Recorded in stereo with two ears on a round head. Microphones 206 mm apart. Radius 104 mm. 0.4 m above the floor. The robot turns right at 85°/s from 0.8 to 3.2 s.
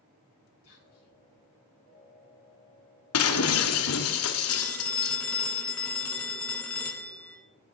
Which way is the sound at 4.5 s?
5° left (ahead or behind).